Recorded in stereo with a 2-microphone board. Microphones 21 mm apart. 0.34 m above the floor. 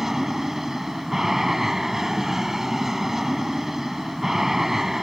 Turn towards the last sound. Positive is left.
turn(degrees=-15)  # may be behind; listen again after turning